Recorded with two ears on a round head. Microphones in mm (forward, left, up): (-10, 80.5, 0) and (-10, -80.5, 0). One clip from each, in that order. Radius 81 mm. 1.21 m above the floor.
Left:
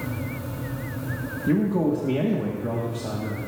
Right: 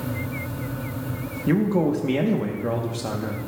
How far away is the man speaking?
About 1.1 m.